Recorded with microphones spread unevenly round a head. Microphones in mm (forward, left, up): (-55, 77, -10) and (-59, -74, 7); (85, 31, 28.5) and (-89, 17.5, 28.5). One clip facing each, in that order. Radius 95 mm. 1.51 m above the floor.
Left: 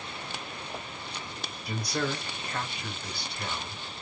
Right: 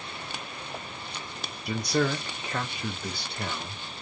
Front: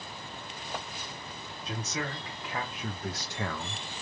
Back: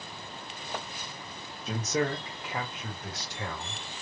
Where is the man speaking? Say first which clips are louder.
Right 5 dB, back 7 dB; 125° right, 1.0 m; by 3.8 s 25° right, 0.9 m.